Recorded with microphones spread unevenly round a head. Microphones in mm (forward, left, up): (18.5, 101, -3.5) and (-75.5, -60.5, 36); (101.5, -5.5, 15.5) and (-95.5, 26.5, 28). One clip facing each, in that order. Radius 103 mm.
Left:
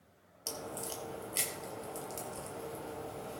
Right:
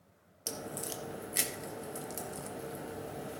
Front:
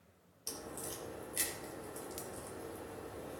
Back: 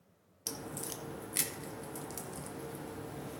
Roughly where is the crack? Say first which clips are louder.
Right 1 dB, back 3 dB; behind.